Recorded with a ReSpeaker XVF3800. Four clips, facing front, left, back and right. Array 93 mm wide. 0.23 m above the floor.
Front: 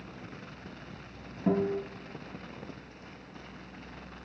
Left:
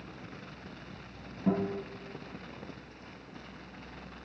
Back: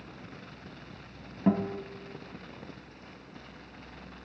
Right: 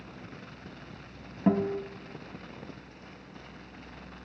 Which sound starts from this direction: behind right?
A guitar, at 1.5 s.